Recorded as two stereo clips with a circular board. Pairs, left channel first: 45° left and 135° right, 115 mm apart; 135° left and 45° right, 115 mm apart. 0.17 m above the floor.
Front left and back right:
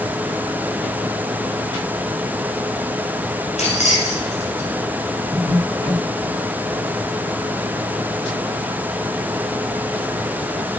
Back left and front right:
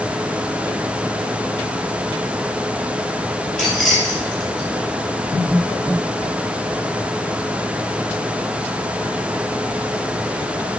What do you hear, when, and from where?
3.6 s keys jangling: 45° left, 3 m